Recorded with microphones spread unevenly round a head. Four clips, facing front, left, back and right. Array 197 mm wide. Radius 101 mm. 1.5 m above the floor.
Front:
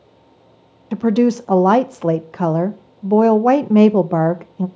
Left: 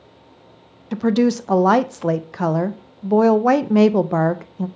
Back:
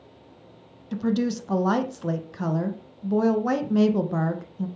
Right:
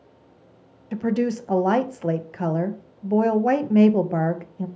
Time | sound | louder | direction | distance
0.9 | a woman speaking | left 6 dB, front 10 dB | 10° left | 0.6 m